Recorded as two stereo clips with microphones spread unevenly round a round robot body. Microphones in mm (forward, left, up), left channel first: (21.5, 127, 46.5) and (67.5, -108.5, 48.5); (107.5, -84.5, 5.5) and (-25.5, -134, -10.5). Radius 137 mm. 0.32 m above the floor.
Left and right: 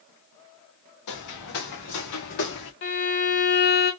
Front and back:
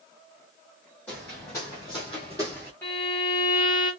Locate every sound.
1.1 s footsteps: 105° left, 2 m; by 2.7 s 80° left, 1.8 m
2.8 s a violin: 95° left, 1.7 m